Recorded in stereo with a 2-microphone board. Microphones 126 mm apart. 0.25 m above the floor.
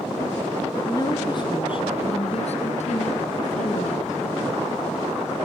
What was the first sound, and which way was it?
A woman speaking, 25° left (ahead or behind).